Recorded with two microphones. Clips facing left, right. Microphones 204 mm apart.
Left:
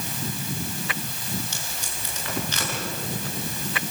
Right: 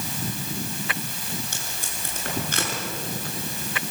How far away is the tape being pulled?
About 6.5 m.